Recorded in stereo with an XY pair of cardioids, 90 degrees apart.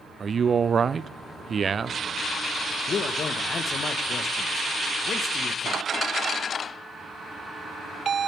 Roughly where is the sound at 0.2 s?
Ahead right.